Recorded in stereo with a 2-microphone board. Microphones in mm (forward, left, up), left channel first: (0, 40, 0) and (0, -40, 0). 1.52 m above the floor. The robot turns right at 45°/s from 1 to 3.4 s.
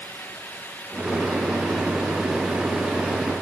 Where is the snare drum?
No snare drum in this recording.